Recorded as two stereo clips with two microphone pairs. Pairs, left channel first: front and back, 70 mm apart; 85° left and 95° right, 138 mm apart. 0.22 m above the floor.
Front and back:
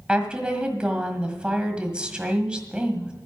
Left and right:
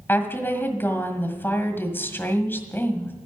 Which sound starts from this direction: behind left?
A woman speaking, at 0.1 s.